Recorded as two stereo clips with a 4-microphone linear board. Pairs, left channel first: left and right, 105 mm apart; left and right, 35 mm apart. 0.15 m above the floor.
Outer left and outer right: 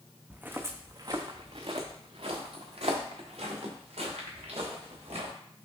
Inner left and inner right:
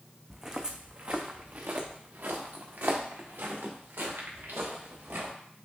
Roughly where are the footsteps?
Centre.